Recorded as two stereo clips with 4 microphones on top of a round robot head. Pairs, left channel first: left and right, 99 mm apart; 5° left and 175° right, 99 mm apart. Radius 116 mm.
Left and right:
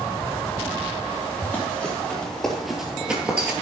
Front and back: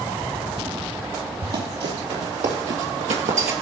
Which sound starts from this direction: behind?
Running footsteps, at 1.4 s.